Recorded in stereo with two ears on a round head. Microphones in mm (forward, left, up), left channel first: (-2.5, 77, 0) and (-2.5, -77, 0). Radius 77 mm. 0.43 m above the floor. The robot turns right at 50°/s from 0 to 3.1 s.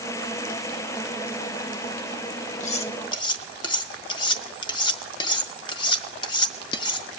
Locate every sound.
2.6 s cutlery clinking: 45° left (ahead or behind), 0.9 m; by 7.1 s 30° left (ahead or behind), 0.9 m